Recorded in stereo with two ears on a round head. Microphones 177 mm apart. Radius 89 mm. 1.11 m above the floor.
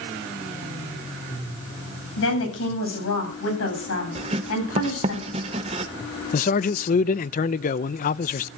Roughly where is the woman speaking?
Left.